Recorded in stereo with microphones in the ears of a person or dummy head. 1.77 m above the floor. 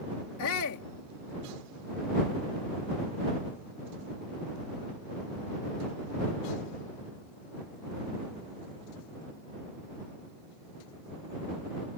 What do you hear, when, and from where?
0.4 s a shout: 75° left (ahead or behind)